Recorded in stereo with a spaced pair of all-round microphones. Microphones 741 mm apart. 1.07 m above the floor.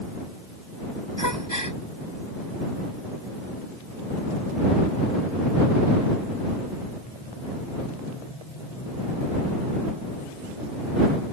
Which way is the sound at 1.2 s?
25° left (ahead or behind).